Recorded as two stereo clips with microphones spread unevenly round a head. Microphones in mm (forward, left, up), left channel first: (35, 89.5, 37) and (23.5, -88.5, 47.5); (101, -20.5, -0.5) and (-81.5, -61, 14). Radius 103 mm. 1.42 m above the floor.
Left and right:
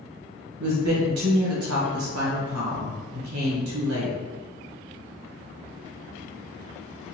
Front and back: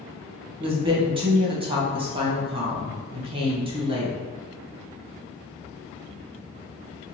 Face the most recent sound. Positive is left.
turn(degrees=-105)